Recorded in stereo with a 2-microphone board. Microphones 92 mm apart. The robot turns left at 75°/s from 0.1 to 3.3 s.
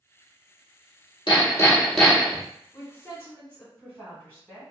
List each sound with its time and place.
1.3 s hammering: 60° left, 1.3 m; by 2.4 s 25° right, 1.3 m
2.7 s a woman speaking: 75° left, 1.8 m; by 4.7 s 35° left, 1.8 m